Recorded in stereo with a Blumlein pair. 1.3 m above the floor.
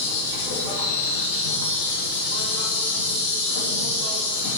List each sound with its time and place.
0.0 s an insect: 45° left, 4 m